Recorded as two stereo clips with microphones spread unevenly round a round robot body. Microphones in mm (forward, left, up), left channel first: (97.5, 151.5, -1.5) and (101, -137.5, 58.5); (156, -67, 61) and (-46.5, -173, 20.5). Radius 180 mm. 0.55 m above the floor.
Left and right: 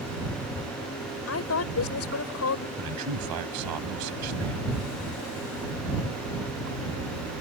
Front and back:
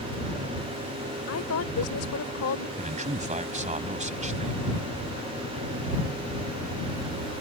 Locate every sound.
1.3 s a woman speaking: 65° left
2.8 s a man speaking: 95° right